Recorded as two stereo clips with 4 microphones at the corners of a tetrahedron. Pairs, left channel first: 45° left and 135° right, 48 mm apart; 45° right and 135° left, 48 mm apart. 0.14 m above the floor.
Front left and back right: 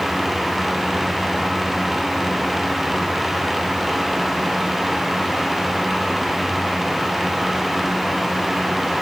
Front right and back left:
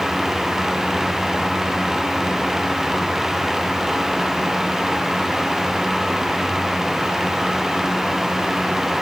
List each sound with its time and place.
Only background noise.